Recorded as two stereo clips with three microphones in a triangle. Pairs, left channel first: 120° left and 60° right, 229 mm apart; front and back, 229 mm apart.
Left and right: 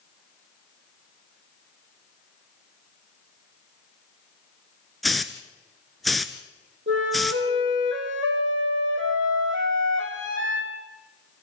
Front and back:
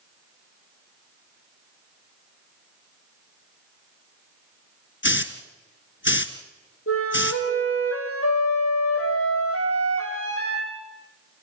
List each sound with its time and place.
5.0 s a hiss: 30° left, 1.1 m
6.9 s a flute: 25° right, 3.5 m